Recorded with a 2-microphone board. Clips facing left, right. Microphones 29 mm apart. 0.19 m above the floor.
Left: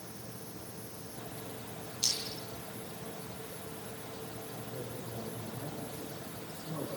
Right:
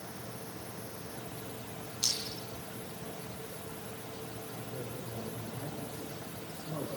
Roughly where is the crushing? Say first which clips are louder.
Even; centre.